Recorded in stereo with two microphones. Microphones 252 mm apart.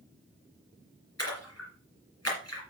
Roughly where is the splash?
Left.